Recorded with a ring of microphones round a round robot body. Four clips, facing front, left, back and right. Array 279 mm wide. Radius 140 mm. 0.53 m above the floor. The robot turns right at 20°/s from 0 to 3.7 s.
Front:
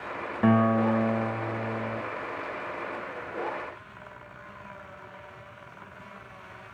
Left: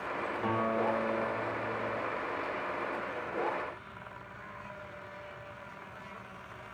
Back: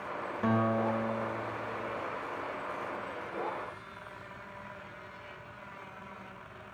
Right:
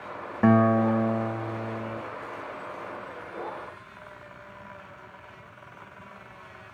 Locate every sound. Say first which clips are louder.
0.4 s a guitar: right 11 dB, front 7 dB; 60° right, 0.5 m; by 2.0 s 30° right, 0.5 m